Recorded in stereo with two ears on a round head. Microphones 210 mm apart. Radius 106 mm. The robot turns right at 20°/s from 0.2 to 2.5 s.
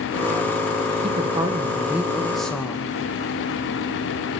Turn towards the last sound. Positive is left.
turn(degrees=5)  # may be behind; listen again after turning